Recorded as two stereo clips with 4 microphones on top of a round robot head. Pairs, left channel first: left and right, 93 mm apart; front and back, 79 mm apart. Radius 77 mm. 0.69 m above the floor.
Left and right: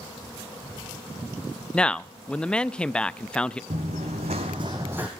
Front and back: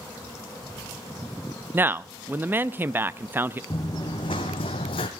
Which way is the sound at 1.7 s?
160° left.